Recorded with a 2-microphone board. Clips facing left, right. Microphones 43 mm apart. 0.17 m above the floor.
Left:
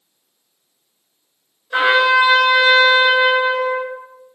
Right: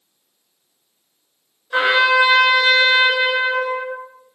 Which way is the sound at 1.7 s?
5° left (ahead or behind).